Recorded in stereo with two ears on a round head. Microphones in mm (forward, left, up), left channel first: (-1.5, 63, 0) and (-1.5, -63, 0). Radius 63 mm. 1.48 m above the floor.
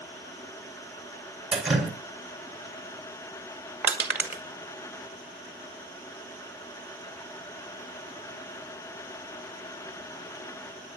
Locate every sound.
1.5 s dripping: 5° right (ahead or behind), 3 m
3.8 s crushing: 10° right (ahead or behind), 2 m